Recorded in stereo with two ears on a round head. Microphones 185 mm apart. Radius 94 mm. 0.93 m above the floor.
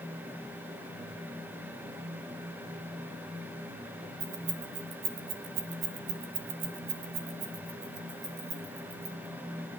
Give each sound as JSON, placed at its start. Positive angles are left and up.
{"t": 4.2, "sound": "keys jangling", "side_deg": -50, "distance_m": 2.5}